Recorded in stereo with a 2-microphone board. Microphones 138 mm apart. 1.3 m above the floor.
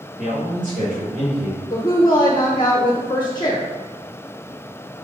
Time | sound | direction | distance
0.2 | a man speaking | 65° right (ahead or behind) | 2.5 m
1.7 | a woman speaking | 35° left (ahead or behind) | 0.9 m